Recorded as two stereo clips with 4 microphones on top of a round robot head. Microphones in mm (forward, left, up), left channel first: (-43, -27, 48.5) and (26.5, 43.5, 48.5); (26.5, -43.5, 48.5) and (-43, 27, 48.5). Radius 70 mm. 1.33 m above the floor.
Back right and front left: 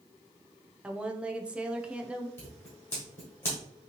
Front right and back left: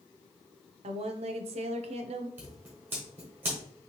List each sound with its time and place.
0.8 s a woman speaking: 125° left, 0.5 m
2.4 s scissors: 175° right, 1.1 m